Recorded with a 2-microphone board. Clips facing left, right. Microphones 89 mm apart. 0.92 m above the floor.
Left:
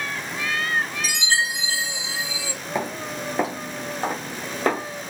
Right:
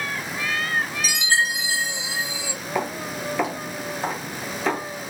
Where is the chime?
10° right (ahead or behind), 0.7 m.